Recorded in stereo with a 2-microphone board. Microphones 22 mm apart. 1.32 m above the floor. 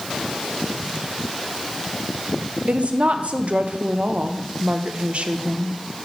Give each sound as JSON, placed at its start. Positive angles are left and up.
{"t": 2.7, "sound": "a woman speaking", "side_deg": -65, "distance_m": 0.6}